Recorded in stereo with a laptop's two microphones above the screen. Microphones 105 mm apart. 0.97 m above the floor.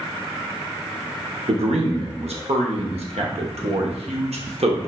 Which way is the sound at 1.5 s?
75° right (ahead or behind).